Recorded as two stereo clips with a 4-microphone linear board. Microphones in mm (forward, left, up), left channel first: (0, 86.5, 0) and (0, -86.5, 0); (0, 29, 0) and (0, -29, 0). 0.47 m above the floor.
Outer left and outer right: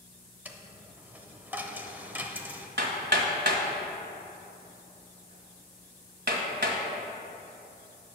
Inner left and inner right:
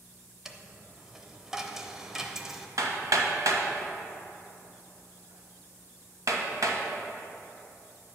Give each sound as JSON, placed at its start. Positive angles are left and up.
{"t": 0.5, "sound": "a dropped coin", "side_deg": -10, "distance_m": 0.7}
{"t": 2.8, "sound": "hammering", "side_deg": -80, "distance_m": 1.4}